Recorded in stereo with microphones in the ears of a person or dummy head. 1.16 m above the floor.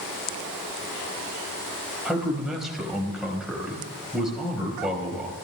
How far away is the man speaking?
About 4 m.